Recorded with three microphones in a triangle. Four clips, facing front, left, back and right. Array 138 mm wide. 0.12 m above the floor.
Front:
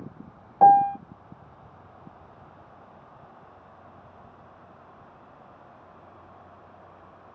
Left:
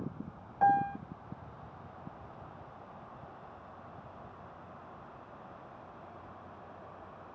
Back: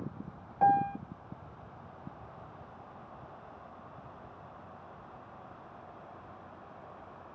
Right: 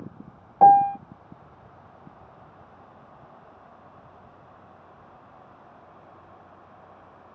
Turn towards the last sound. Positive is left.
turn(degrees=-55)